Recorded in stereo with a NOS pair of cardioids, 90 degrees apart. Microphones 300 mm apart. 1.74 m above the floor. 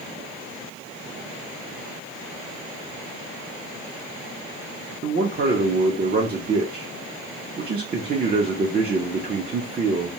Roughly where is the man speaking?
Ahead right.